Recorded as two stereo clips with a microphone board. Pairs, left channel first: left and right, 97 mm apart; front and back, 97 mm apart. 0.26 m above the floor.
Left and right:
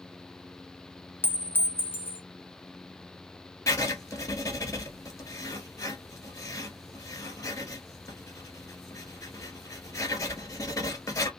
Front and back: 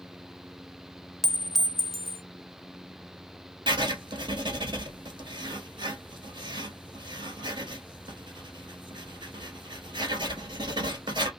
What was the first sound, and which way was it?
A clink, 80° left.